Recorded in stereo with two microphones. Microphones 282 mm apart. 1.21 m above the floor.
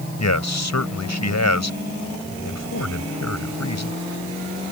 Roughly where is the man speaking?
Left.